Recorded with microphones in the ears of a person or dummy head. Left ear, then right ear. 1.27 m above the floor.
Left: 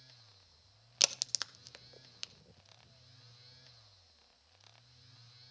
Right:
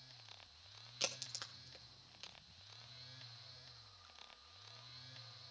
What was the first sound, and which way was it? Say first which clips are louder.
A crack: left 11 dB; 30° left (ahead or behind).